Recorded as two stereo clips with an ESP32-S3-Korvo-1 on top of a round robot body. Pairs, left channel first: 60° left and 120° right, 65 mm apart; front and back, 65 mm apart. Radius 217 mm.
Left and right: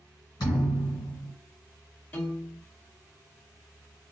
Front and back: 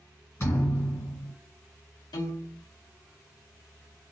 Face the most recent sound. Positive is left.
turn(degrees=0)